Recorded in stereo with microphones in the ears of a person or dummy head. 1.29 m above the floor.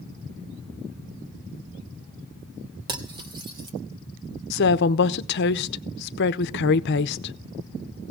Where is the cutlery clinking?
25° right (ahead or behind), 1.1 m.